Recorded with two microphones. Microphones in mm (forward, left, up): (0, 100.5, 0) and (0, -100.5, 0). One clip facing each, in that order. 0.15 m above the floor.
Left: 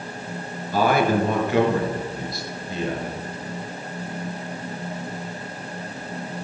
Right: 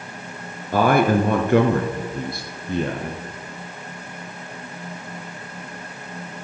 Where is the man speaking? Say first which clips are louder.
Right 3 dB; 55° right (ahead or behind), 2 m.